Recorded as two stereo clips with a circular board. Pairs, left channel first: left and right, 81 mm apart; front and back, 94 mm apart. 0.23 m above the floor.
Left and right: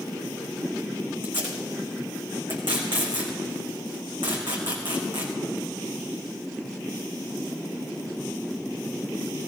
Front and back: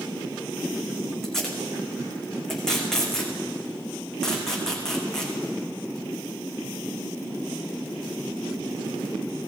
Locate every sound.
1.2 s tape being pulled: 85° right, 3.5 m